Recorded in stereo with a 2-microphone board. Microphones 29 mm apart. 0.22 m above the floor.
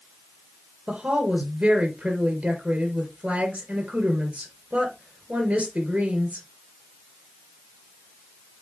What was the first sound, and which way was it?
A woman speaking, 45° right (ahead or behind).